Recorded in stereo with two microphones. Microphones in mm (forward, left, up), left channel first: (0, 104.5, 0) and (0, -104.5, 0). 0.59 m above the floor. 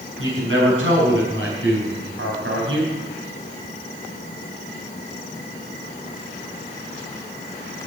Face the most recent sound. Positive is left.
turn(degrees=-75)  # may be behind; listen again after turning